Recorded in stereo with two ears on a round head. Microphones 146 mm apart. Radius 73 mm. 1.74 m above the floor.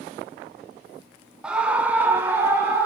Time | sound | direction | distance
1.4 | a scream | 5° right (ahead or behind) | 0.6 m